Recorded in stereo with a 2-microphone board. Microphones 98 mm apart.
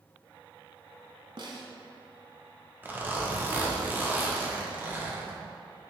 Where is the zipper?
20° right (ahead or behind), 0.9 m.